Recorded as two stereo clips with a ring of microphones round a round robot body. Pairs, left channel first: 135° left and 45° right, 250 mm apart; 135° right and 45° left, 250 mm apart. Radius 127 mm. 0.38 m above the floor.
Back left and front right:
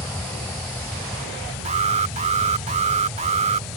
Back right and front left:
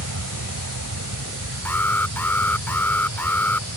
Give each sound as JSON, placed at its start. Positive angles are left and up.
{"t": 0.0, "sound": "an aircraft", "azimuth_deg": 55}
{"t": 1.6, "sound": "an alarm", "azimuth_deg": -60}